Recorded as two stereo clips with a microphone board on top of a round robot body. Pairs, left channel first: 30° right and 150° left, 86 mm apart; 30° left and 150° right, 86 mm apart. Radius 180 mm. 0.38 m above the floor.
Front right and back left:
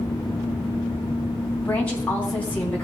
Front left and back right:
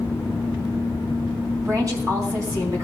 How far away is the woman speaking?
About 3 m.